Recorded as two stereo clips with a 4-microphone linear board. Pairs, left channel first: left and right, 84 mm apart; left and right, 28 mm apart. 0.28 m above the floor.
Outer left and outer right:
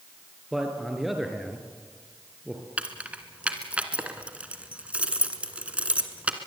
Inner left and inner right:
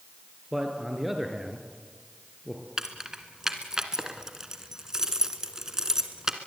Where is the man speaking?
5° right (ahead or behind), 4 m.